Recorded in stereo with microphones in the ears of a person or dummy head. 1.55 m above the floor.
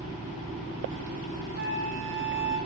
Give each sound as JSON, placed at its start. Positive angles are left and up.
{"t": 1.6, "sound": "a flute", "side_deg": -65, "distance_m": 5.5}